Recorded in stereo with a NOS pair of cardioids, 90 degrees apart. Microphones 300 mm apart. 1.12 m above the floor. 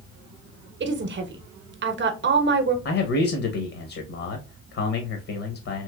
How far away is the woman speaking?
About 0.8 m.